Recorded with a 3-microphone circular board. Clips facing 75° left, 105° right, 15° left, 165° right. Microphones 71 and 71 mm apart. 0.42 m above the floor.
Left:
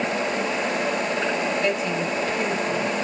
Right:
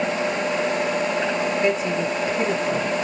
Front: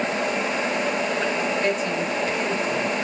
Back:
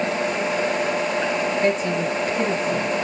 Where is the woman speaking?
145° right, 1.5 m.